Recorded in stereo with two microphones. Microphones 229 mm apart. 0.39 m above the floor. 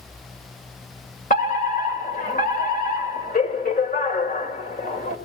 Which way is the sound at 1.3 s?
40° left (ahead or behind).